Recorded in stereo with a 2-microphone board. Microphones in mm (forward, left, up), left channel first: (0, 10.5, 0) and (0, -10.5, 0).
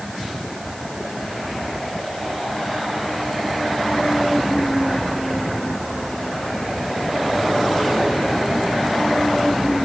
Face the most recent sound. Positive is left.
No sound to turn to.